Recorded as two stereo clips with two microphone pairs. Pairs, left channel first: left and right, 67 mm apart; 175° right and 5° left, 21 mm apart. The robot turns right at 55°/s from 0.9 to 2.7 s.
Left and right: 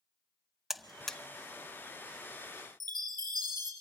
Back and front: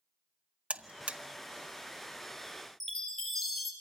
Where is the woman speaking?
No woman speaking in this recording.